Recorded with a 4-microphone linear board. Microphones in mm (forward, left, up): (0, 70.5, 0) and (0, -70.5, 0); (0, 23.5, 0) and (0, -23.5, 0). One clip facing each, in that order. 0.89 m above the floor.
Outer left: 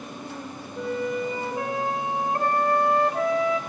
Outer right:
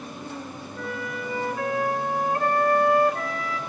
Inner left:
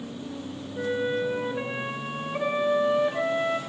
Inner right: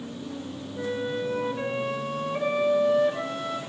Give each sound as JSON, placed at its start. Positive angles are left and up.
{"t": 0.8, "sound": "a flute", "side_deg": 20, "distance_m": 2.5}